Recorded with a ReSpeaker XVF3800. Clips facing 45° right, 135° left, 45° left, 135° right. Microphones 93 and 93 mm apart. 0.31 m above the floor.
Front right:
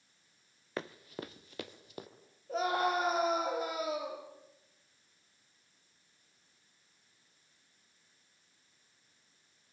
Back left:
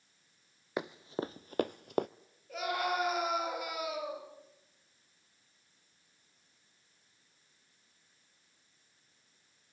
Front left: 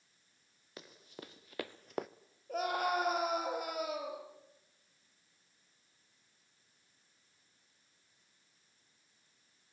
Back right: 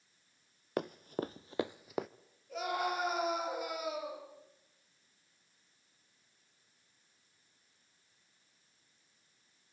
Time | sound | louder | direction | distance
0.8 | running footsteps | back left 5 dB, back right 15 dB | 150° right | 0.7 m
2.5 | a scream | front right 3 dB, front left 2 dB | 10° left | 6.5 m